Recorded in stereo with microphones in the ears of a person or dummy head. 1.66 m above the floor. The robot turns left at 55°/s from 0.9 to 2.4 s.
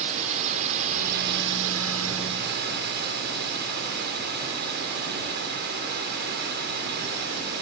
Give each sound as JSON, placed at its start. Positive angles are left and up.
{"t": 0.0, "sound": "a drone", "azimuth_deg": -35}